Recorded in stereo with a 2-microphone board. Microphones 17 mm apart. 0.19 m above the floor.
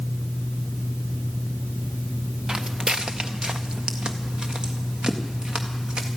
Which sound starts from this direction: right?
Footsteps, at 2.5 s.